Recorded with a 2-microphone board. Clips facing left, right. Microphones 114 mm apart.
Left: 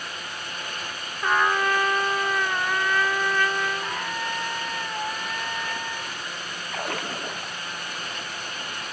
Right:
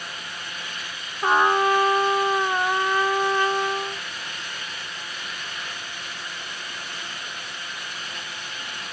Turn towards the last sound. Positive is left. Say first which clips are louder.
# left 7 dB
turn(degrees=65)  # may be behind; listen again after turning